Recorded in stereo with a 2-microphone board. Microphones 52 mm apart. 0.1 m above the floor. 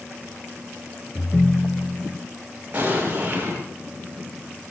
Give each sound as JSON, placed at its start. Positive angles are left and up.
{"t": 1.1, "sound": "a ringtone", "side_deg": 0, "distance_m": 0.5}
{"t": 2.7, "sound": "an explosion", "side_deg": -30, "distance_m": 10.0}